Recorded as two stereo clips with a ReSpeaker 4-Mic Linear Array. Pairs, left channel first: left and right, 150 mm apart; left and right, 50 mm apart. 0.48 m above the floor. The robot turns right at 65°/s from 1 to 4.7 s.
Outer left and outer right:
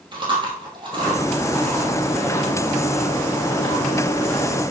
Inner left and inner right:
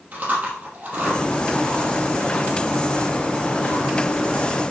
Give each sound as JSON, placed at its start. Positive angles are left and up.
{"t": 0.1, "sound": "chewing", "side_deg": -35, "distance_m": 2.5}